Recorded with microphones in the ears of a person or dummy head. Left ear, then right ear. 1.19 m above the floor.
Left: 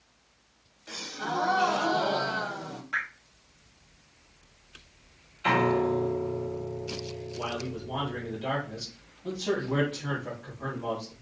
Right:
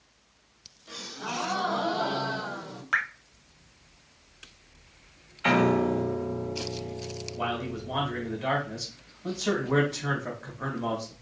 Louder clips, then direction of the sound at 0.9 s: Left 2 dB; 50° left (ahead or behind).